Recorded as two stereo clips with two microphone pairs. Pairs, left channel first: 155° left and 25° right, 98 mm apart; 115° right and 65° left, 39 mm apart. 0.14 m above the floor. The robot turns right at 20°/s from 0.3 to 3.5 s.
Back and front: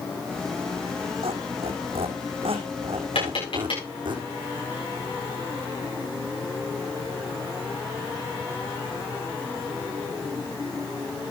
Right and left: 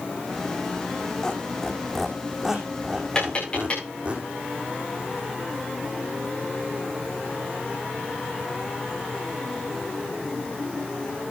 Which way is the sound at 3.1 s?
175° left.